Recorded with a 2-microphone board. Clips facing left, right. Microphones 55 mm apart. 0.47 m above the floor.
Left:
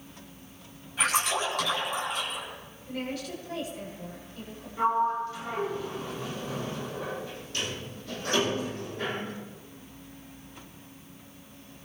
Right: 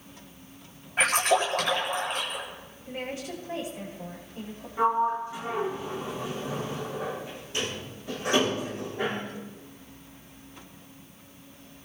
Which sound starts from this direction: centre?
A sliding door, at 4.8 s.